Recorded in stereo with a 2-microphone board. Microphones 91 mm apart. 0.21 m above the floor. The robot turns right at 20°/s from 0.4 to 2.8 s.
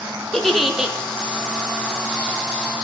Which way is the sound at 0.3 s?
Centre (ahead or behind).